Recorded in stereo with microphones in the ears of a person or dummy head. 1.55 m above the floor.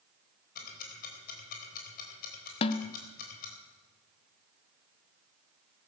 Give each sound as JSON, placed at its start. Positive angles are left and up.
{"t": 0.6, "sound": "ticking", "side_deg": 45, "distance_m": 4.0}
{"t": 2.6, "sound": "a snare drum", "side_deg": 30, "distance_m": 0.8}